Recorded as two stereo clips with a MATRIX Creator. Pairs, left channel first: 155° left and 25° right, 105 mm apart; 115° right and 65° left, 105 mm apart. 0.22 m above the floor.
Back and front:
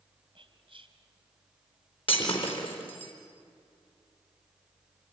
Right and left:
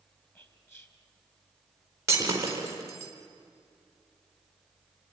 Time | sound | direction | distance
0.3 | whispering | 50° right | 3 m
2.1 | breaking glass | 130° left | 4 m